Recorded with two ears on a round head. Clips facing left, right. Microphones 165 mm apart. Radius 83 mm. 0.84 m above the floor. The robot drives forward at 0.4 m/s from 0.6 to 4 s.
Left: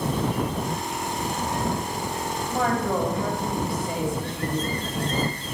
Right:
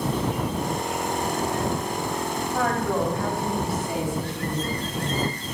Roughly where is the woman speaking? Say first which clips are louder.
Left 1 dB; centre.